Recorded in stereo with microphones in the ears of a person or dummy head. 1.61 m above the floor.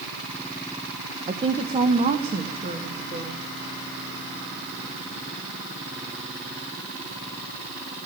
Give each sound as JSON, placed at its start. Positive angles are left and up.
{"t": 1.3, "sound": "a woman speaking", "side_deg": -30, "distance_m": 1.1}